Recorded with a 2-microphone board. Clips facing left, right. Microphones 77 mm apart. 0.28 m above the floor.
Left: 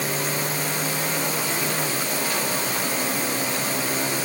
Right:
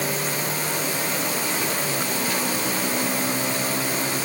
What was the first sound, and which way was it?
Only background noise.